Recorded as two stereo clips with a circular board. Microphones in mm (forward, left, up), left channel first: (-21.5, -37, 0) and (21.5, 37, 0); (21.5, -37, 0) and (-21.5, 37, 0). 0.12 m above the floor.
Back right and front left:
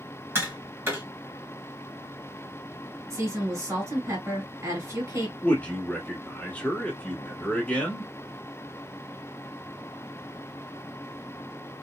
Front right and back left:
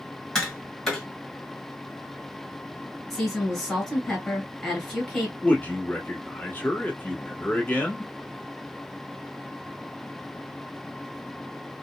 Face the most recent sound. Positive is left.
turn(degrees=-85)